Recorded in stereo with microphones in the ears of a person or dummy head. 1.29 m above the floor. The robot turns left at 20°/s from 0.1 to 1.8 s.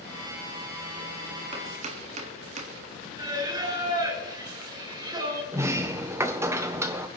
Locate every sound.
1.5 s chopping: 35° right (ahead or behind), 1.7 m; by 2.7 s 40° right (ahead or behind), 1.7 m
3.2 s singing: 25° right (ahead or behind), 3.5 m
5.5 s a sliding door: 10° right (ahead or behind), 0.5 m